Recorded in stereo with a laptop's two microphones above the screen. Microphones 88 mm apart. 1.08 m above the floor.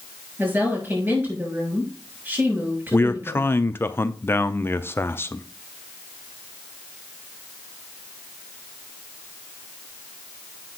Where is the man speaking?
25° left (ahead or behind), 0.5 m.